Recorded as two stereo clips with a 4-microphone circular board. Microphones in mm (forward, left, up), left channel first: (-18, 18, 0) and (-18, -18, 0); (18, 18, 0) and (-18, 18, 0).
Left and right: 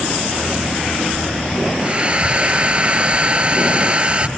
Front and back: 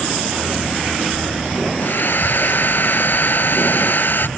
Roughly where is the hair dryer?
Ahead right.